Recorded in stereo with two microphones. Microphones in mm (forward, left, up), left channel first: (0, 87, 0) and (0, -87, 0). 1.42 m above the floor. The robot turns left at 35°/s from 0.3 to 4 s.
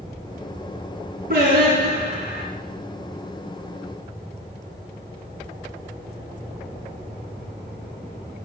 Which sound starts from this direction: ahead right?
Singing, at 1.3 s.